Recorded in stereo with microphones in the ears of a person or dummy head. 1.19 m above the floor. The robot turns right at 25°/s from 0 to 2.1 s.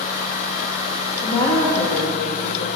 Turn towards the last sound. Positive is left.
turn(degrees=40)  # may be behind; listen again after turning